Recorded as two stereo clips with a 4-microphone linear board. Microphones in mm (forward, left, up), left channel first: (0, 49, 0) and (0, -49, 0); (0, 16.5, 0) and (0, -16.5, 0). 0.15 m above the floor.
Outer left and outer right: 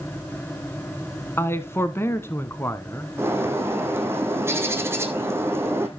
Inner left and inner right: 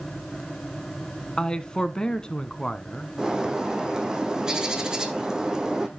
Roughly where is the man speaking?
Left.